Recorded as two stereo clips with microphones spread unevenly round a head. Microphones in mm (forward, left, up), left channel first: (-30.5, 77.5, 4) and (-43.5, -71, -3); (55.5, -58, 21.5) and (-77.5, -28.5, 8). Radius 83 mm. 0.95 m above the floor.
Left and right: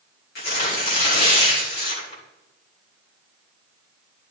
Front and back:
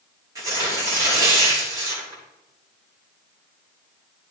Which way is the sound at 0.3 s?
95° left.